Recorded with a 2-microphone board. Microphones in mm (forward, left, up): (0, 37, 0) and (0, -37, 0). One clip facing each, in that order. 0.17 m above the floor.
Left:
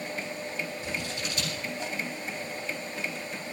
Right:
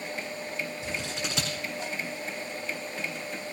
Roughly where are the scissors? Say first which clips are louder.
Even; right.